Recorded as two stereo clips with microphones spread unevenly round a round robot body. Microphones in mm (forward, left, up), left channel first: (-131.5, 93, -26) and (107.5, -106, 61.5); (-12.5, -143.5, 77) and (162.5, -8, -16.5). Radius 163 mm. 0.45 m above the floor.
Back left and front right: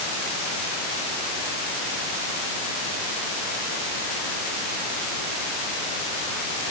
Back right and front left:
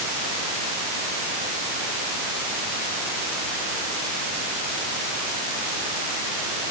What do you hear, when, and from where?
Only background noise.